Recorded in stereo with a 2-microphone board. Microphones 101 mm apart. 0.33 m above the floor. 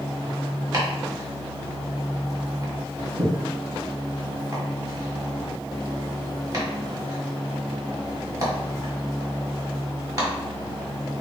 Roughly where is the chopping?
Right.